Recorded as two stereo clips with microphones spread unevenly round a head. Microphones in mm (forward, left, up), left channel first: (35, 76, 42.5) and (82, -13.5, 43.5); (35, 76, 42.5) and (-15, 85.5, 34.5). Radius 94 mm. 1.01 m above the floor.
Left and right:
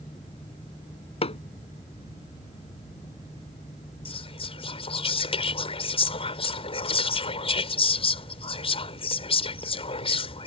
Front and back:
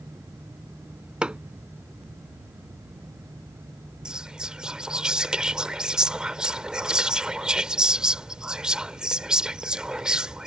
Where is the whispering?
95° left.